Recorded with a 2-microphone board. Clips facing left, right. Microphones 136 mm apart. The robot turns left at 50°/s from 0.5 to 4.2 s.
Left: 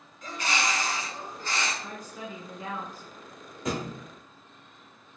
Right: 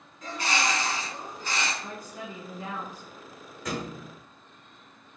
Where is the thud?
25° left (ahead or behind), 1.0 m; by 4.0 s 5° left (ahead or behind), 1.0 m.